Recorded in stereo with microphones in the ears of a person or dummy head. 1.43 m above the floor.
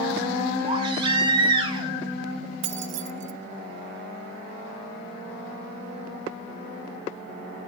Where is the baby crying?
30° right (ahead or behind), 3 m.